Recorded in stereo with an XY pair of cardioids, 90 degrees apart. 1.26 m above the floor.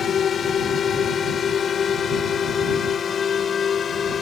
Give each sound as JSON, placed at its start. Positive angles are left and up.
{"t": 0.0, "sound": "a drone", "azimuth_deg": 60}